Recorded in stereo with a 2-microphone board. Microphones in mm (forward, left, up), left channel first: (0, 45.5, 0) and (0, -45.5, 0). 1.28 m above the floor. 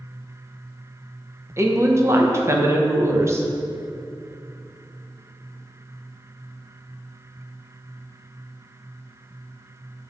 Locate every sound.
1.6 s a woman speaking: 30° right (ahead or behind), 0.8 m